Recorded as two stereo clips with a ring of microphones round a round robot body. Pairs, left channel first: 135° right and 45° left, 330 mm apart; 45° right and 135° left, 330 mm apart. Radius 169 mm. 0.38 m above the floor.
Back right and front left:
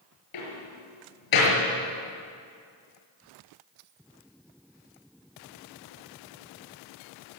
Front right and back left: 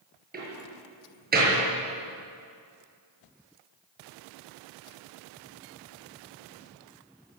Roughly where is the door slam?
Behind.